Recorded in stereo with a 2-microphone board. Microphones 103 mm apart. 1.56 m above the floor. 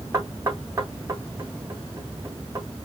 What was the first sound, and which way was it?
Knocking, 25° right (ahead or behind).